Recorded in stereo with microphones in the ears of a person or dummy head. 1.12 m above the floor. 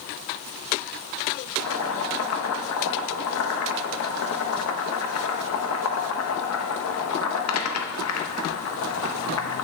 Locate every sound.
1.6 s boiling: 85° left, 0.9 m